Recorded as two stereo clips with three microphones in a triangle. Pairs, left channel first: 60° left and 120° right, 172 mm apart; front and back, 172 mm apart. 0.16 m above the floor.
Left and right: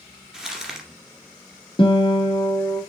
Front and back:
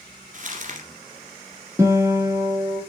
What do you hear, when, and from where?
0.3 s crumpling: 155° left, 2 m
1.8 s a guitar: 110° left, 1.7 m